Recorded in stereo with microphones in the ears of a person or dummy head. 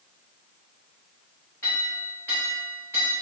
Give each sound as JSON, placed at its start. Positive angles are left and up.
{"t": 1.6, "sound": "a clink", "side_deg": 5, "distance_m": 0.8}